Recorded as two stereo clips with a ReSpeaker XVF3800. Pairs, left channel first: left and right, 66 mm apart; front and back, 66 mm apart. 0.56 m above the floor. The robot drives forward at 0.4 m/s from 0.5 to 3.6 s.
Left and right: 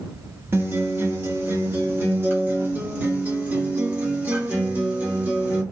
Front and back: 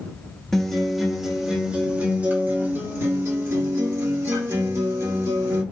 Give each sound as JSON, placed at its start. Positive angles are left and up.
{"t": 0.5, "sound": "a guitar", "azimuth_deg": -80, "distance_m": 1.3}